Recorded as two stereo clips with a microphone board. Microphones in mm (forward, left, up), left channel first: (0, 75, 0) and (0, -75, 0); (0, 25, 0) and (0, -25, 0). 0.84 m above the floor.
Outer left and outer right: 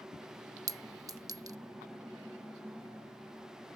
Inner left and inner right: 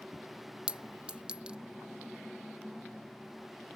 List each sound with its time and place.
0.7 s a clink: 25° right (ahead or behind)